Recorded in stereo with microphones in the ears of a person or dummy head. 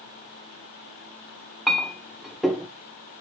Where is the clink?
Centre (ahead or behind), 0.5 m.